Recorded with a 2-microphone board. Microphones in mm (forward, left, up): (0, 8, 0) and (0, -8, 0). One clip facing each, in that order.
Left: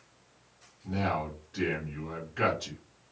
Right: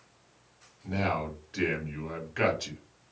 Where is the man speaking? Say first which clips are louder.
Right 1 dB; 60° right (ahead or behind), 1.6 m.